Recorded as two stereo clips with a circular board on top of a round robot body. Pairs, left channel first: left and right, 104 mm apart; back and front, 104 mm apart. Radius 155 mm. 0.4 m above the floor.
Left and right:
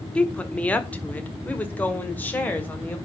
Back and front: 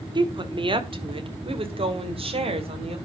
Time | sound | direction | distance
0.1 | a woman speaking | 15° left | 1.5 m